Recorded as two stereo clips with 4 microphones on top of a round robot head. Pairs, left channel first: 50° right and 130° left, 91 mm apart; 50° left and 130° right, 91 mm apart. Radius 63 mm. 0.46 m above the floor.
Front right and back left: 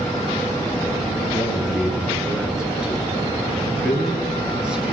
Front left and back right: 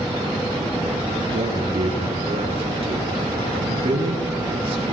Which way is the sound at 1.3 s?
150° right.